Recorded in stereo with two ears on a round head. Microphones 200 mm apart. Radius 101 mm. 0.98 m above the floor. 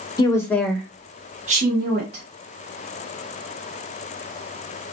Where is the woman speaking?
20° left (ahead or behind), 1.0 m; by 2.2 s 50° right (ahead or behind), 1.1 m.